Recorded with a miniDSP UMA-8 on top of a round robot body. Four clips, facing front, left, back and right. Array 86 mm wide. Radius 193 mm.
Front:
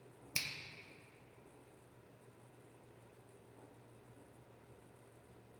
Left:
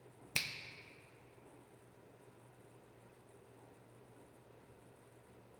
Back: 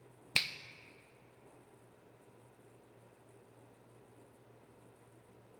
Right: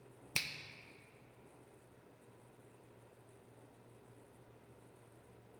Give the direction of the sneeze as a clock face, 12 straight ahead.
No sneeze in this recording.